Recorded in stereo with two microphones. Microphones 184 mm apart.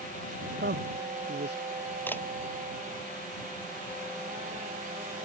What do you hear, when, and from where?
0.6 s a man speaking: 65° right (ahead or behind)
2.1 s a camera shutter: 10° left (ahead or behind)